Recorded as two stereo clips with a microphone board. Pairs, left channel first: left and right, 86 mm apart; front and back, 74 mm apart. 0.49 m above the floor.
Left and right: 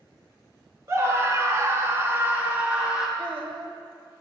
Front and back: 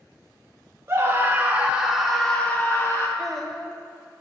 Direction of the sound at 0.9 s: 135° right.